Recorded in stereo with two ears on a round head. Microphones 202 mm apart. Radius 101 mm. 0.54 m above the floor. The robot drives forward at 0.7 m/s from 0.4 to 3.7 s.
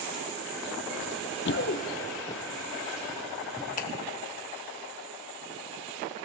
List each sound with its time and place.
1.0 s running footsteps: 65° left (ahead or behind), 1.2 m; by 3.7 s 10° right (ahead or behind), 3 m
3.8 s a finger snap: 40° left (ahead or behind), 1.5 m